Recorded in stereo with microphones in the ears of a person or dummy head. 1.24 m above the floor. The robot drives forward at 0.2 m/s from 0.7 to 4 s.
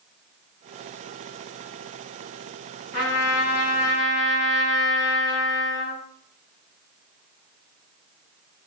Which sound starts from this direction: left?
A trumpet, at 2.9 s.